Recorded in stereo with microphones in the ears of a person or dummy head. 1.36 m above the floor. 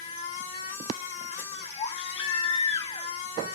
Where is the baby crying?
40° left (ahead or behind), 1.1 m.